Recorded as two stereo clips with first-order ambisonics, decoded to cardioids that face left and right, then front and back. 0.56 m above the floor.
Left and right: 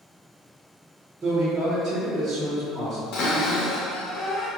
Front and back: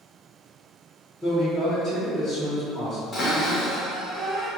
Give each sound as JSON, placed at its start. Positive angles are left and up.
{"t": 1.2, "sound": "a man speaking", "azimuth_deg": -80, "distance_m": 0.9}
{"t": 3.1, "sound": "a cupboard door", "azimuth_deg": 75, "distance_m": 0.8}